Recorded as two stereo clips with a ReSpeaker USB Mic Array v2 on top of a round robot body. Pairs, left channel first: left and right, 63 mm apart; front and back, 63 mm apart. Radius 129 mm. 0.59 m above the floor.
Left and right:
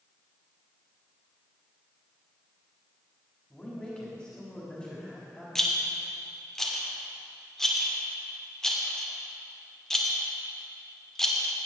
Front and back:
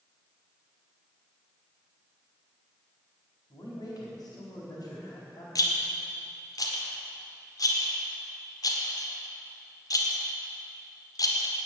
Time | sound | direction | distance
3.5 | a man speaking | 15° left | 4.5 m
5.5 | a rattle | 5° left | 2 m